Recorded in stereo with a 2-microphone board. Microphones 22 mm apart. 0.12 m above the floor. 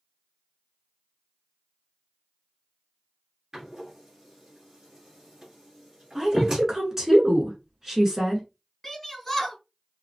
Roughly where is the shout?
Centre.